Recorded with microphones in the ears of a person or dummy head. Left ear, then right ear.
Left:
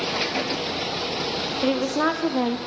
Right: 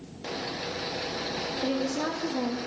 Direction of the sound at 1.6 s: 50° left (ahead or behind).